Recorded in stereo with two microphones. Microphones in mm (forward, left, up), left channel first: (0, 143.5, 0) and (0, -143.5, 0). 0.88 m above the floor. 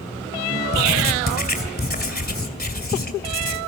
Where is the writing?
30° left (ahead or behind), 2.5 m.